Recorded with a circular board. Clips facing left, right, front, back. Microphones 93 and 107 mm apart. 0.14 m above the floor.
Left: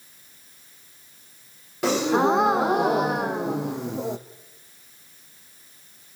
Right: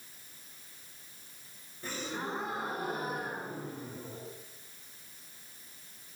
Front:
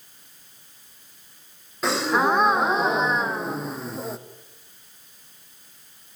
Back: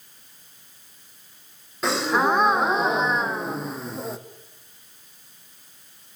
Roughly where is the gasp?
Left.